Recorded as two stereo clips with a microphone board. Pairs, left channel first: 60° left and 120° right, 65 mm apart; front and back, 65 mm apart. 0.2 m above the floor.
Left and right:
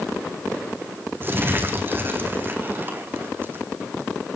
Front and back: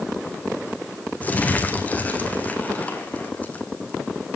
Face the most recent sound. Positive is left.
turn(degrees=-65)